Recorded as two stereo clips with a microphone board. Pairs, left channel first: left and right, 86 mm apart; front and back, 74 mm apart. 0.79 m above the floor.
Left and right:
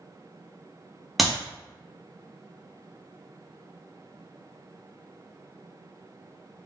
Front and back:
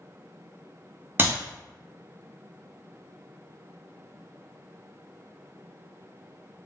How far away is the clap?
About 0.8 m.